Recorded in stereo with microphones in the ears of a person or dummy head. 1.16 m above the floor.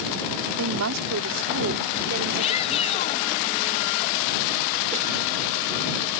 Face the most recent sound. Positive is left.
turn(degrees=40)  # may be behind; listen again after turning